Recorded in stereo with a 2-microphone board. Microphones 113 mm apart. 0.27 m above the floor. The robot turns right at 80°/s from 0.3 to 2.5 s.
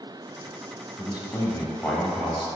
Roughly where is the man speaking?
Left.